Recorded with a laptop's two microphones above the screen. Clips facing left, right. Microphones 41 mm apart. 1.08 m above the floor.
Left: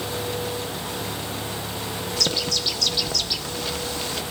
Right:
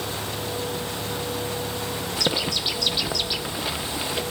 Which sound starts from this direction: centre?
A bird, at 2.2 s.